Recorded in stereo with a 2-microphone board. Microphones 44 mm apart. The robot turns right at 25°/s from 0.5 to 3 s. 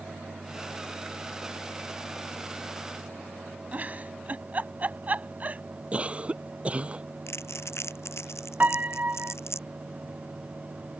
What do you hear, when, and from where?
3.7 s a giggle: 40° right (ahead or behind)
5.9 s a cough: 25° right (ahead or behind)
7.3 s crumpling: 80° left
8.6 s a piano: 40° right (ahead or behind)